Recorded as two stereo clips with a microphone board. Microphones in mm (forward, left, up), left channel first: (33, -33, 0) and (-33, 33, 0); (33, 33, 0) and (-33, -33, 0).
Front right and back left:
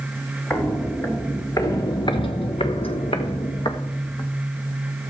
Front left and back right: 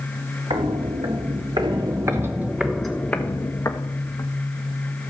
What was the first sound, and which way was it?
Footsteps, 120° right.